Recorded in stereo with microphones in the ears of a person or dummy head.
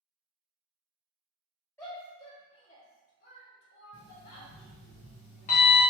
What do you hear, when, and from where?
1.8 s a shout: 15° left (ahead or behind), 1.3 m; by 4.5 s 75° left (ahead or behind), 1.2 m
3.9 s an alarm clock: 30° left (ahead or behind), 0.6 m